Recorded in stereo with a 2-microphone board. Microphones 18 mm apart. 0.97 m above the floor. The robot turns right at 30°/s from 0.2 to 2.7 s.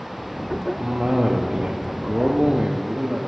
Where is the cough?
130° right, 1.0 m; by 3.3 s 70° right, 1.0 m.